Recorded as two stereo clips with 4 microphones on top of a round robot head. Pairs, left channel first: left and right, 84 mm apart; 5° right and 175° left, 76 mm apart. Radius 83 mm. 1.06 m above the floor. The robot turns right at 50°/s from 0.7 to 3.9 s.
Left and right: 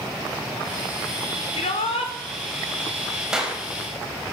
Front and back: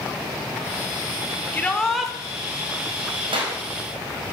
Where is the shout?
60° left, 3 m; by 2.1 s 95° left, 3 m.